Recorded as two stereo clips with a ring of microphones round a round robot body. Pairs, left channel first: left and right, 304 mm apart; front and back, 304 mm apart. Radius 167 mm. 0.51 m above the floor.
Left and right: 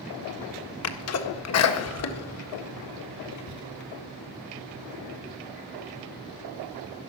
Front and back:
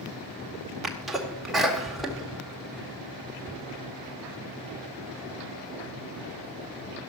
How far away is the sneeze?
About 1.7 m.